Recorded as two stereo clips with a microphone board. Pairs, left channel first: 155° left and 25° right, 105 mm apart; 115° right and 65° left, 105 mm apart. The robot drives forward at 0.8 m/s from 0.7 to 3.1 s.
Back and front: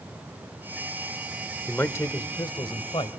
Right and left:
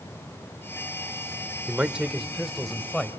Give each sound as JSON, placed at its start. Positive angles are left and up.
{"t": 1.7, "sound": "a man speaking", "azimuth_deg": 110, "distance_m": 1.0}